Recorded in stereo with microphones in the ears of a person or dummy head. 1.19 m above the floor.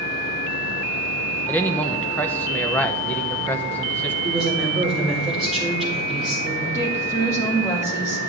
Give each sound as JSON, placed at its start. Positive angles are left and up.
{"t": 1.5, "sound": "a man speaking", "side_deg": 15, "distance_m": 0.9}
{"t": 4.2, "sound": "a woman speaking", "side_deg": 5, "distance_m": 4.5}
{"t": 6.7, "sound": "a woman speaking", "side_deg": 20, "distance_m": 1.9}